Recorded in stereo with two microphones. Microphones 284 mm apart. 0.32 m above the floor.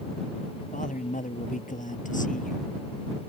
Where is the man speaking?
25° left (ahead or behind).